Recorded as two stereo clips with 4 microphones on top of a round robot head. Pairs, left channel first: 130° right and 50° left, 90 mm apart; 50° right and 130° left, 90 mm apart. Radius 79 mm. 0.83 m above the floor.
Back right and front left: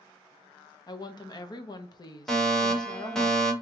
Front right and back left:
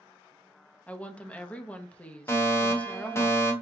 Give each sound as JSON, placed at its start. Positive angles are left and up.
{"t": 0.9, "sound": "a woman speaking", "azimuth_deg": -120, "distance_m": 0.8}
{"t": 2.3, "sound": "a fire alarm", "azimuth_deg": -50, "distance_m": 1.4}